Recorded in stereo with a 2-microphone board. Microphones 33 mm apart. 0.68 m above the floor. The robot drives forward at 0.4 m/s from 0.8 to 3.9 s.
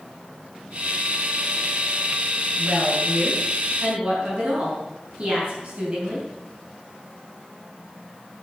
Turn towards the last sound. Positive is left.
turn(degrees=-40)  # may be behind; listen again after turning